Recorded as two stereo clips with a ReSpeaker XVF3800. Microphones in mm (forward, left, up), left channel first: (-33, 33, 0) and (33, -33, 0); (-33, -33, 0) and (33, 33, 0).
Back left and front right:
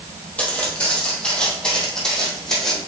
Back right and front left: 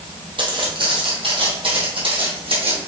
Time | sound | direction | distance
0.4 | footsteps | 60° left | 2.5 m